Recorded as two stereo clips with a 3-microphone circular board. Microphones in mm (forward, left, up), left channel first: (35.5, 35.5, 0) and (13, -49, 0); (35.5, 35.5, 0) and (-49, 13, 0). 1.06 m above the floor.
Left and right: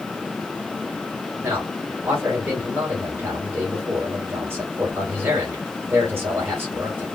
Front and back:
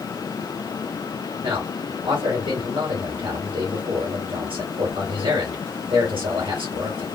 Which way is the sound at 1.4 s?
170° right.